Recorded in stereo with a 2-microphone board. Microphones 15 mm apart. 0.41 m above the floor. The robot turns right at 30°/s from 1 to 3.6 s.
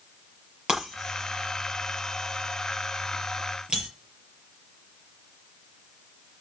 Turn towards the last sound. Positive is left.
turn(degrees=-65)  # may be behind; listen again after turning